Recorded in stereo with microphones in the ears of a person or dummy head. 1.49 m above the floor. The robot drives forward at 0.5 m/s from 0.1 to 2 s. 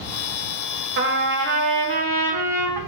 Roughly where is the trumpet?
Right.